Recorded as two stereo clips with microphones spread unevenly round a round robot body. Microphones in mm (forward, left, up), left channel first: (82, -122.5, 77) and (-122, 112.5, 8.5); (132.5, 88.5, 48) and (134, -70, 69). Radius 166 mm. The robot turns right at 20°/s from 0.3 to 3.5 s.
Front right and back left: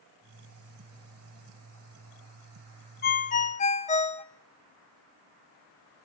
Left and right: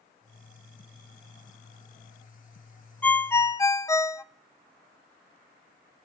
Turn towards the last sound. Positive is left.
turn(degrees=25)